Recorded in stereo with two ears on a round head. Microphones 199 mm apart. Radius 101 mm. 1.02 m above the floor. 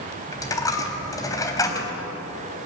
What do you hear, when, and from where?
0.3 s a dropped coin: 15° left (ahead or behind), 3.5 m